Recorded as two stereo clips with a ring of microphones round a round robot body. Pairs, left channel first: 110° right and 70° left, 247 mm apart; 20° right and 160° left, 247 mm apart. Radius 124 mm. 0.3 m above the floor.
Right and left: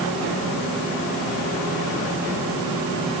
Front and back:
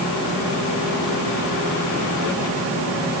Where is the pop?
No pop in this recording.